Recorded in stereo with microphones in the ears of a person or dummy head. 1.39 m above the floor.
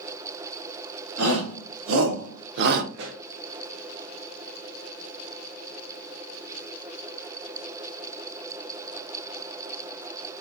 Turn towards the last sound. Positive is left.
turn(degrees=-65)  # may be behind; listen again after turning